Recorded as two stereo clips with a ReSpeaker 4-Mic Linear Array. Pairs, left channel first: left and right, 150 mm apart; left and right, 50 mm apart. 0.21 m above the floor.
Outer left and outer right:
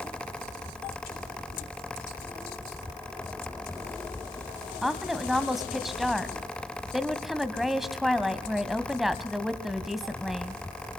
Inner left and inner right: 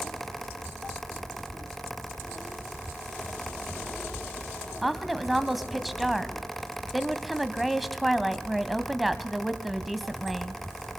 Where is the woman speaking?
Centre (ahead or behind), 1.6 m.